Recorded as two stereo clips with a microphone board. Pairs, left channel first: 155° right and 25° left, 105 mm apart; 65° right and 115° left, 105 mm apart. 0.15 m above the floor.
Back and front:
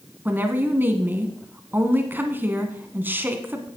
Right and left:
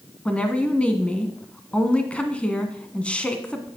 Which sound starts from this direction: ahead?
A woman speaking, at 0.2 s.